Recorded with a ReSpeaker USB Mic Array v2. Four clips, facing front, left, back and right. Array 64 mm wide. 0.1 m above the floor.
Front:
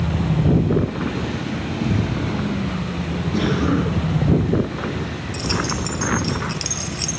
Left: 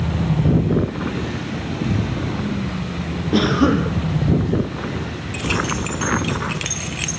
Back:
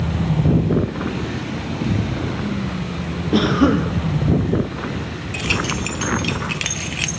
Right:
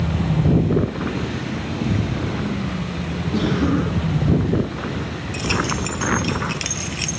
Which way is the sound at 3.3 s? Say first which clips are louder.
Left 4 dB, back 5 dB; 150° left.